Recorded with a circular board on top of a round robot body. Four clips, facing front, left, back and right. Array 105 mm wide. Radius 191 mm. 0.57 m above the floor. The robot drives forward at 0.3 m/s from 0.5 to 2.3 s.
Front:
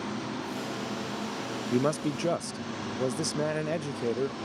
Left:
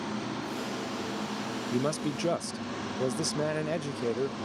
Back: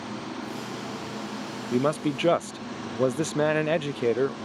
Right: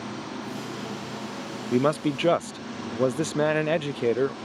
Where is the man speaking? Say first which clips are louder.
Right 8 dB, back 3 dB; 100° right; by 4.3 s 130° right.